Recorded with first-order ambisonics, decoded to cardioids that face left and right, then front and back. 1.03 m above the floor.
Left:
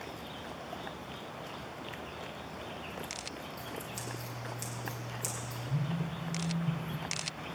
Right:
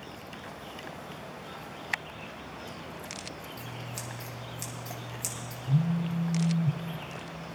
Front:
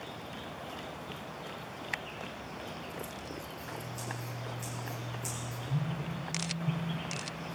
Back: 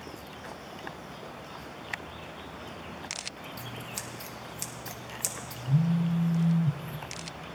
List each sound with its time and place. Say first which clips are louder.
3.6 s scissors: right 1 dB, back 2 dB; 170° right, 1.5 m
5.7 s a phone buzzing: right 8 dB, back 10 dB; 135° right, 0.5 m